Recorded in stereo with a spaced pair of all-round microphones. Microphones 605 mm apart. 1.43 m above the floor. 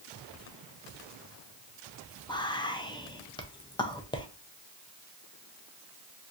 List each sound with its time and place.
2.3 s whispering: 10° left (ahead or behind), 0.5 m